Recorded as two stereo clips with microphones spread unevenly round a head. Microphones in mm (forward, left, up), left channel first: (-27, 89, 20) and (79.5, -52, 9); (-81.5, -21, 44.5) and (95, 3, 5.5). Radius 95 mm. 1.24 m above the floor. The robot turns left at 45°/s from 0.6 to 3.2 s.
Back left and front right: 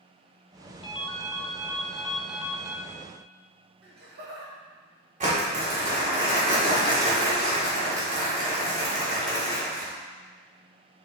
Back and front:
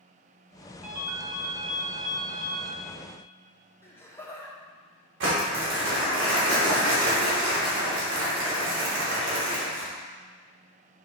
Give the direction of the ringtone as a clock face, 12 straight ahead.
9 o'clock.